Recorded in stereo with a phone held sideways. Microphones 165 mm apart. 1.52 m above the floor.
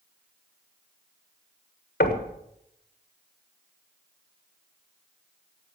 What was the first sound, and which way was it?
Knocking, 80° left.